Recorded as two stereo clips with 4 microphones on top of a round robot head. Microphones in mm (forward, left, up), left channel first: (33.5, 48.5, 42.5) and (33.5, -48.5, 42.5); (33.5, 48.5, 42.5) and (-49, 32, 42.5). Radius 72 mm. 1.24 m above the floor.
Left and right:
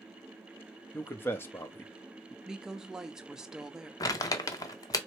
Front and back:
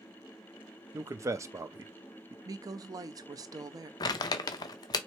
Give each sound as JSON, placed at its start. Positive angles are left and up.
{"t": 0.9, "sound": "a man speaking", "azimuth_deg": 150, "distance_m": 0.7}
{"t": 2.5, "sound": "a woman speaking", "azimuth_deg": -170, "distance_m": 0.7}
{"t": 4.0, "sound": "crumpling", "azimuth_deg": 40, "distance_m": 0.6}